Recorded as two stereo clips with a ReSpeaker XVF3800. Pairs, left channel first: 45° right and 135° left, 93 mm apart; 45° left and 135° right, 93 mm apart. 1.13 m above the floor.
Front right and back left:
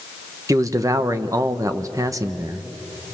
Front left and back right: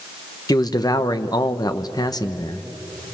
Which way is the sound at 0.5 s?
85° left.